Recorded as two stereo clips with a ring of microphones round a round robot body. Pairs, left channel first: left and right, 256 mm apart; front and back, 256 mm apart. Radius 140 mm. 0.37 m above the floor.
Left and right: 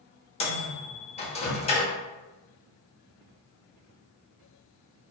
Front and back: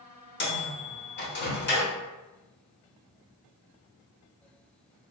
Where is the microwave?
30° left, 0.7 m.